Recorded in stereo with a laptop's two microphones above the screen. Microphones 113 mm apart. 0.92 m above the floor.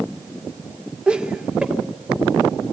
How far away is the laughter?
About 2.5 m.